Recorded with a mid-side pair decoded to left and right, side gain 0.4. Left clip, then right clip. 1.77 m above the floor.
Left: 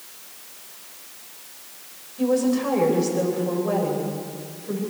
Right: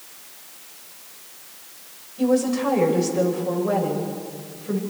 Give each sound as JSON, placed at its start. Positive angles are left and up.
{"t": 2.2, "sound": "a woman speaking", "azimuth_deg": -15, "distance_m": 10.0}